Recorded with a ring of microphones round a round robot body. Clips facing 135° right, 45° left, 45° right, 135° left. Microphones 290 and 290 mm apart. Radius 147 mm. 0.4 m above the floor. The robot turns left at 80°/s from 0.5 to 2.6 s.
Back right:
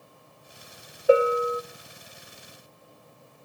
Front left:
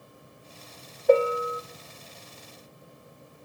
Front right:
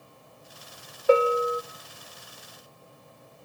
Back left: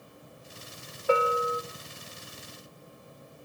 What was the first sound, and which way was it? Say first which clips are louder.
A bell: back right 1 dB, front right 6 dB; 55° right.